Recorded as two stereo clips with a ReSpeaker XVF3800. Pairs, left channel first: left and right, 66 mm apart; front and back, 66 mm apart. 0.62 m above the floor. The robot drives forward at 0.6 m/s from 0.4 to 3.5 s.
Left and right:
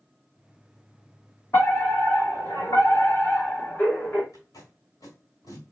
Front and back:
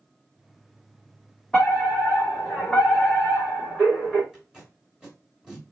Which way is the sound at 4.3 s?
105° left.